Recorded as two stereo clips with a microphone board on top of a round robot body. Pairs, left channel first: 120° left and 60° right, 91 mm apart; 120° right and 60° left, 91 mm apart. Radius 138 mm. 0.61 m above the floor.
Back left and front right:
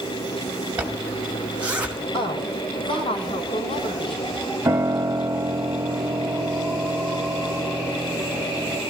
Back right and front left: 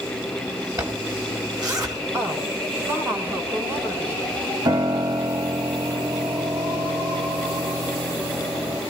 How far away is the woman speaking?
About 7 m.